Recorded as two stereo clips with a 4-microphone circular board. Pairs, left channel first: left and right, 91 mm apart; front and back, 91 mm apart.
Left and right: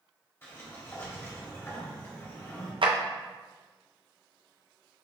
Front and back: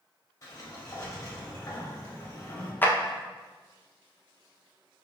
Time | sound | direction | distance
0.4 | a sliding door | 35° left | 1.2 m
2.8 | a clap | 70° right | 0.5 m